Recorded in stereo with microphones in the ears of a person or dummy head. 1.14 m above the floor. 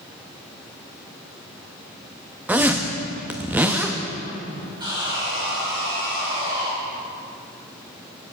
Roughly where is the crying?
I don't hear crying.